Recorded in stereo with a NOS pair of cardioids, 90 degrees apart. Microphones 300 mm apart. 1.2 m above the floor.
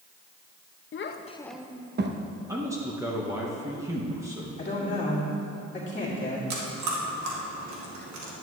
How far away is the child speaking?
About 1.0 m.